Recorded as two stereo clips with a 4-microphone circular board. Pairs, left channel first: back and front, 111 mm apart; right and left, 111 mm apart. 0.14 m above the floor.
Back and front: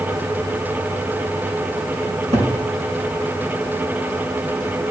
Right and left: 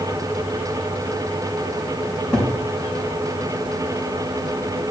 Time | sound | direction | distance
2.1 | a cupboard door | 5° right | 3.5 m